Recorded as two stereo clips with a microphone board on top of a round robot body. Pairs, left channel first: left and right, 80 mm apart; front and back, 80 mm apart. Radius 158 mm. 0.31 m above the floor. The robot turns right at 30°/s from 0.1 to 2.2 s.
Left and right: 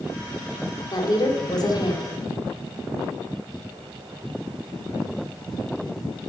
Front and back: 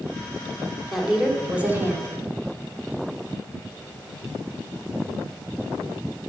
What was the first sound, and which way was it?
A woman speaking, 90° left.